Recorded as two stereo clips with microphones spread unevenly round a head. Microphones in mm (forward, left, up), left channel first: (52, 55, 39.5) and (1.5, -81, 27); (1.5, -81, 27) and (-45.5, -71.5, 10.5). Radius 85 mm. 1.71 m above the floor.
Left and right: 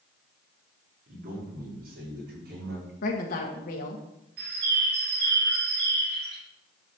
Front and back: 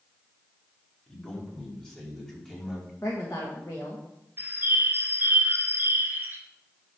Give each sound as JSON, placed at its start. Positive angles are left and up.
{"t": 1.1, "sound": "a man speaking", "azimuth_deg": -80, "distance_m": 4.5}
{"t": 3.0, "sound": "a woman speaking", "azimuth_deg": 55, "distance_m": 1.5}
{"t": 4.4, "sound": "a bird", "azimuth_deg": -140, "distance_m": 3.0}